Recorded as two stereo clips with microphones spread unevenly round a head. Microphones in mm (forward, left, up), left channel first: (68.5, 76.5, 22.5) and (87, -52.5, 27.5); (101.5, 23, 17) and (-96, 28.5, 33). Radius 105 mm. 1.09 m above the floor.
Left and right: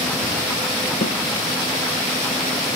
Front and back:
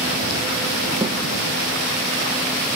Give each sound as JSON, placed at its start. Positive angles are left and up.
{"t": 1.0, "sound": "a snare drum", "azimuth_deg": 95, "distance_m": 8.0}